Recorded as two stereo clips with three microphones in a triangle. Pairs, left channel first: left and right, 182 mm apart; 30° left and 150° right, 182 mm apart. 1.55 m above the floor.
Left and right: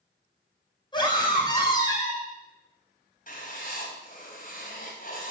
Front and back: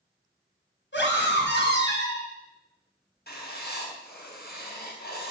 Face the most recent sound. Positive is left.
turn(degrees=50)